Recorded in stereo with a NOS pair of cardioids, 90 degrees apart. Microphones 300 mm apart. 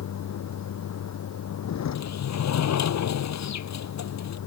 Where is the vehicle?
60° left.